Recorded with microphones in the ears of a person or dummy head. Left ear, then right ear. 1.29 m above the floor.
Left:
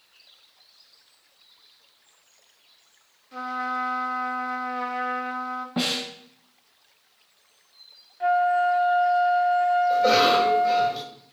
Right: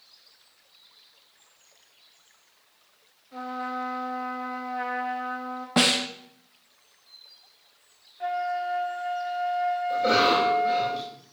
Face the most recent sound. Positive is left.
turn(degrees=20)  # may be behind; listen again after turning